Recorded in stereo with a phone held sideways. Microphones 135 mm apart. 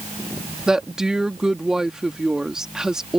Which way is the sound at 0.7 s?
5° right (ahead or behind).